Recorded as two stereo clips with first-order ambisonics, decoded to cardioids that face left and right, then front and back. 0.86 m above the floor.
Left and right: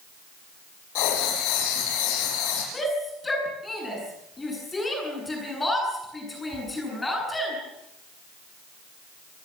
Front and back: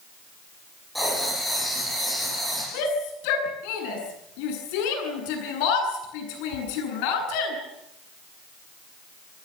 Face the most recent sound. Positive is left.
turn(degrees=10)